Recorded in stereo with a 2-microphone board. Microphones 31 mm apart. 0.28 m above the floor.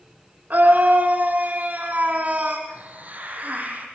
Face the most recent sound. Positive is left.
turn(degrees=-50)  # may be behind; listen again after turning